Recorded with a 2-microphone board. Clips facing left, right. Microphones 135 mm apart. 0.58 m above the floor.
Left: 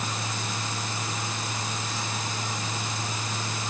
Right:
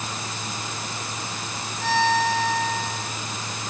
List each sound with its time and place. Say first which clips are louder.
1.8 s a violin: right 12 dB; 75° right (ahead or behind)